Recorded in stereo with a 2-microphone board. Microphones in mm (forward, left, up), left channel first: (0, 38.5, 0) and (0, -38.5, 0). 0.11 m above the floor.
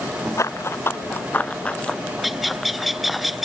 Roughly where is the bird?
Centre.